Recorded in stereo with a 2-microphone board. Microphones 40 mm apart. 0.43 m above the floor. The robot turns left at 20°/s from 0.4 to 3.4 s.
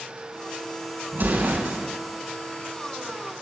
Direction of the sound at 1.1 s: 60° right (ahead or behind).